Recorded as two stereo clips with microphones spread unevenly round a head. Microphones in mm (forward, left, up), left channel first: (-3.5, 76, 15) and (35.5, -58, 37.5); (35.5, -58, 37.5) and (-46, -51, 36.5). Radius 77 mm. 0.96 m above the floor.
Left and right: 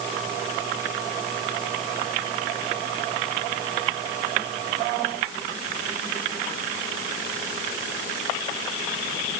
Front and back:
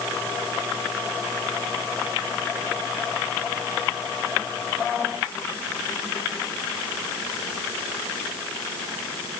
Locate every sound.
Only background noise.